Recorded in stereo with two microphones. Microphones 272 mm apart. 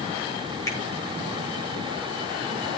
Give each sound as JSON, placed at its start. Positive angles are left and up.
{"t": 0.7, "sound": "a finger snap", "side_deg": 10, "distance_m": 8.0}